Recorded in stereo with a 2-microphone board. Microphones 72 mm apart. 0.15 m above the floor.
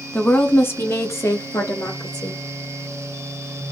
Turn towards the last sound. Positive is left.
turn(degrees=50)  # may be behind; listen again after turning